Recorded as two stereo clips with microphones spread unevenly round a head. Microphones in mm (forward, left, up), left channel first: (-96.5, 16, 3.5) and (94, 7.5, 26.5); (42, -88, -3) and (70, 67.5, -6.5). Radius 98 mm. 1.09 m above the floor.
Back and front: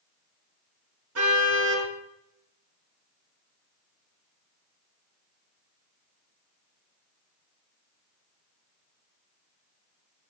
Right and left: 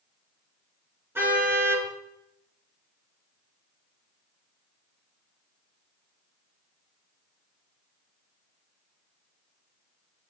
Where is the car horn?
5° left, 8 m.